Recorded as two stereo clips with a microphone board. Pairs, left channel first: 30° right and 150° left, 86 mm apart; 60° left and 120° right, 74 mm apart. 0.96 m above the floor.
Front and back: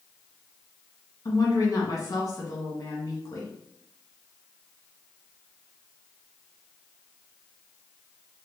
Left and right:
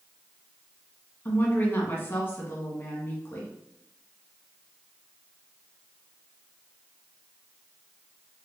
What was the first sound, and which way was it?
A woman speaking, 10° left.